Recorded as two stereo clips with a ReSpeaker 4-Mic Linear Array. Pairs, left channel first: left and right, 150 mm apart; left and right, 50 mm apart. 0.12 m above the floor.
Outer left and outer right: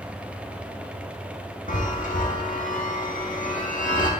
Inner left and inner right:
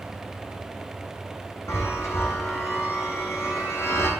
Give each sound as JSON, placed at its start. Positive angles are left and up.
{"t": 1.7, "sound": "a chime", "side_deg": 60, "distance_m": 1.9}